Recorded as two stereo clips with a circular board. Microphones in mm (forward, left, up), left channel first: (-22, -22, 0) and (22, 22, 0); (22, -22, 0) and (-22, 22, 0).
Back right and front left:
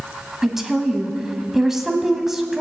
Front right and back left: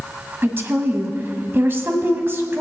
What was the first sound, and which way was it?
A woman speaking, 125° left.